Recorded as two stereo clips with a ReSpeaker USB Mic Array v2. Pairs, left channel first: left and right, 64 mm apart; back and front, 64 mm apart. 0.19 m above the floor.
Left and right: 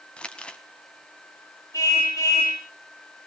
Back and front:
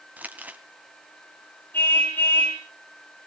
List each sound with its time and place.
0.2 s crumpling: 35° left, 1.4 m
1.7 s a car horn: 120° left, 10 m